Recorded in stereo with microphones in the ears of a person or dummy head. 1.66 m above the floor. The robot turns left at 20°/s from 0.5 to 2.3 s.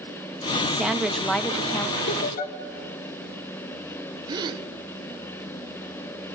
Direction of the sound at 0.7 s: 5° right (ahead or behind).